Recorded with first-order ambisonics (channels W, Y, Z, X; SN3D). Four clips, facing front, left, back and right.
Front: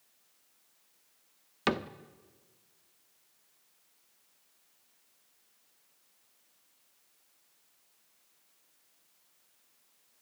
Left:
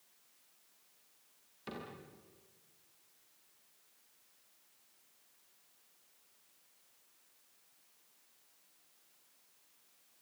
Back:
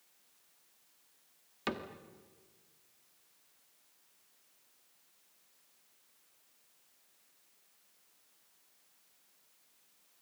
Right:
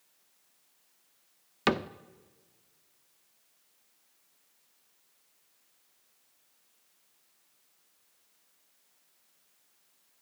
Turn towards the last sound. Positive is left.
turn(degrees=-65)